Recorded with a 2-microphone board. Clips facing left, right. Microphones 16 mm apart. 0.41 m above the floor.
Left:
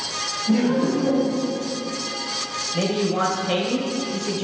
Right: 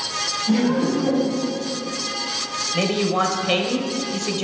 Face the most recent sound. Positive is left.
turn(degrees=-35)  # may be behind; listen again after turning